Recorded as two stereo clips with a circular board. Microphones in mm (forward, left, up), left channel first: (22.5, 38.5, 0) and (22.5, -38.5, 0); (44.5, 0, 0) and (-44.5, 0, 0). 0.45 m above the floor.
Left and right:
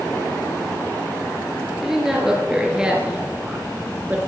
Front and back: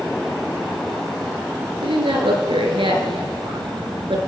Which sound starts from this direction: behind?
A woman speaking, at 1.8 s.